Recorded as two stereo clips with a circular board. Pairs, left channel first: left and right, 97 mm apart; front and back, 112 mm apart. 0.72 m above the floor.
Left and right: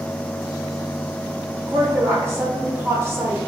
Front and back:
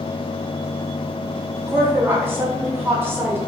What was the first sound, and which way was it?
A woman speaking, 125° right.